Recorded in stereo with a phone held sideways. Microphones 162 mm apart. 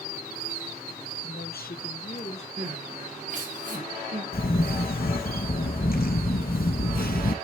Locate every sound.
1.2 s a woman speaking: 75° left (ahead or behind), 0.9 m; by 2.5 s 40° left (ahead or behind), 1.6 m
2.6 s crying: 50° right (ahead or behind), 1.9 m
4.3 s a camera shutter: 65° left (ahead or behind), 0.7 m